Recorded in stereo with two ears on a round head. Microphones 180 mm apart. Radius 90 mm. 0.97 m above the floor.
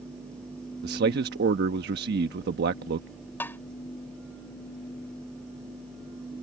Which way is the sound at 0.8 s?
50° right (ahead or behind).